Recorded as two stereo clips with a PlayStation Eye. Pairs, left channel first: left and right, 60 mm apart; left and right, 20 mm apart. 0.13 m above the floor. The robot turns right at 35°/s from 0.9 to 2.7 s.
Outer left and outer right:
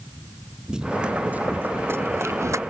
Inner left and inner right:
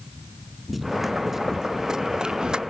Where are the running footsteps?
10° right (ahead or behind); by 2.6 s 55° right (ahead or behind).